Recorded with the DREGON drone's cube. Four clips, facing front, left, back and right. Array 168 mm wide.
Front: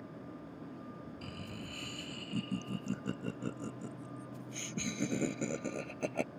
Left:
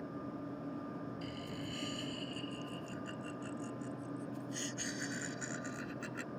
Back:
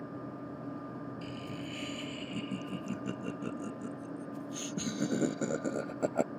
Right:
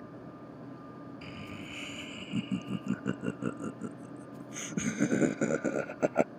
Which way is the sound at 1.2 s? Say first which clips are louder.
Even, back 5 dB; 65° right.